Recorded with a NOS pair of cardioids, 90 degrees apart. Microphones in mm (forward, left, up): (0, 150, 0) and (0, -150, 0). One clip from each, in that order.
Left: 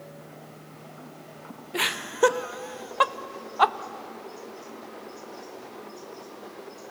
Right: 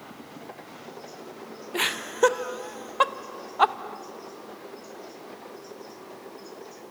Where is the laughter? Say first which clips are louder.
Even; straight ahead, 0.9 m.